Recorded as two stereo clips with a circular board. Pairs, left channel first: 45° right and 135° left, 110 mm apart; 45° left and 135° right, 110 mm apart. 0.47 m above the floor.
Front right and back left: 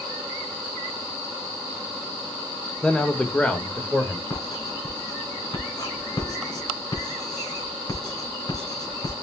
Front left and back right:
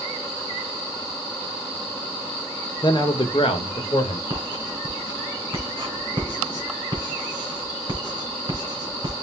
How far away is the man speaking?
About 0.9 m.